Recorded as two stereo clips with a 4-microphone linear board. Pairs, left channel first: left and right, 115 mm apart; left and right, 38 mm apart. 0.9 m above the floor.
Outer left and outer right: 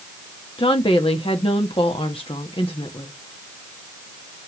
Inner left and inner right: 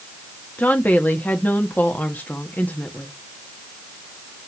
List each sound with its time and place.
0.6 s a woman speaking: 50° left (ahead or behind), 1.1 m